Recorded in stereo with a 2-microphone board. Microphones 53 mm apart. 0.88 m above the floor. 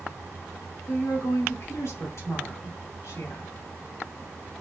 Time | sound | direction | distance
0.9 | a woman speaking | 60° left (ahead or behind) | 2.5 m